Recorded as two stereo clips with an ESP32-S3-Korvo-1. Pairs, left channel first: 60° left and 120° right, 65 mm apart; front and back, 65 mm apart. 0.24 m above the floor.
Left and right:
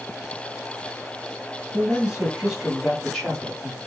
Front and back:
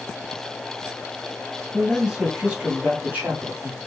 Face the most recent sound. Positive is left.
turn(degrees=130)